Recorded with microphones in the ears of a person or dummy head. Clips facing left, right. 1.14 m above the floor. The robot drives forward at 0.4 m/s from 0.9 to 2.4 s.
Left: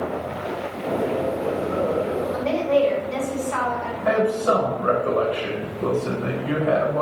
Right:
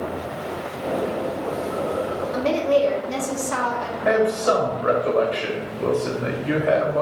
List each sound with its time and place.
2.3 s a woman speaking: 75° right (ahead or behind), 1.5 m
4.0 s a man speaking: 35° right (ahead or behind), 1.7 m